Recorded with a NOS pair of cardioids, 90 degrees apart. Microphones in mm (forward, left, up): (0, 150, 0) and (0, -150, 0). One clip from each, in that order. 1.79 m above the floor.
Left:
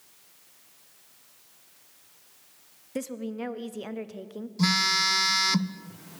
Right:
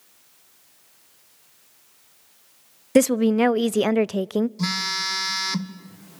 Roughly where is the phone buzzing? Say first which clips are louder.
Left 2 dB; ahead.